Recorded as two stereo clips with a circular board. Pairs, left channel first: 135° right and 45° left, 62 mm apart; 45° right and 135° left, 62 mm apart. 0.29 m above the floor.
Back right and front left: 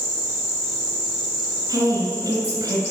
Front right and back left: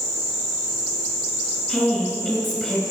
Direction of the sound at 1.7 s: 50° left.